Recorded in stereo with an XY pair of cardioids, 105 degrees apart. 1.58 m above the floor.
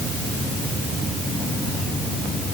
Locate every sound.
Only background noise.